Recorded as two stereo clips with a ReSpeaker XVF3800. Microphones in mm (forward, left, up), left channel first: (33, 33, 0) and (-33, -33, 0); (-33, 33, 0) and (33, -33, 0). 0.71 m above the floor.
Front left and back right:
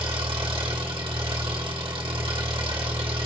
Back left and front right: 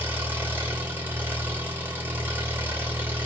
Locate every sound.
0.0 s an engine running: 115° right, 1.4 m